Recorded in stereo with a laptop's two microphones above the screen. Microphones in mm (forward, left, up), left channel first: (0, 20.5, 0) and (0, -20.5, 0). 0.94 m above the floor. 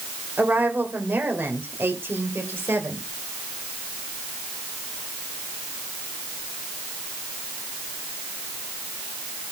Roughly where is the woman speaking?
Right.